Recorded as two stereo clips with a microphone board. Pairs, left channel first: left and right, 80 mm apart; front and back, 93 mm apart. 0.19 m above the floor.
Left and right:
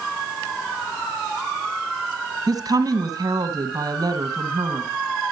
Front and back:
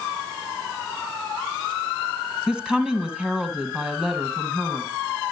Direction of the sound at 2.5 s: 100° right.